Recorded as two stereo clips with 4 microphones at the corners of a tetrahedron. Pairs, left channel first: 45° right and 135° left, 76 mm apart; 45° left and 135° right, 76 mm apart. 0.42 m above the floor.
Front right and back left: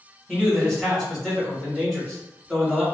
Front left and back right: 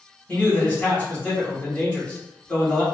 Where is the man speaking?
25° left, 1.4 m.